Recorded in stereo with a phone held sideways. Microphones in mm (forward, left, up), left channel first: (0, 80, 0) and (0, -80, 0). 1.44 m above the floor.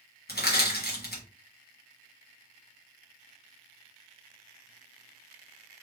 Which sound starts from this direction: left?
Crushing, at 0.3 s.